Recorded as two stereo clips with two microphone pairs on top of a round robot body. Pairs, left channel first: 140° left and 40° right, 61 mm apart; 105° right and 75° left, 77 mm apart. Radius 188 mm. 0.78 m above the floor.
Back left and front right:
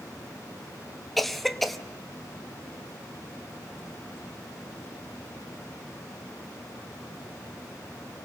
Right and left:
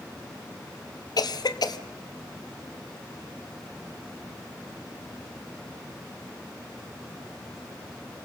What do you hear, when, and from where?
1.2 s a cough: 135° right, 1.2 m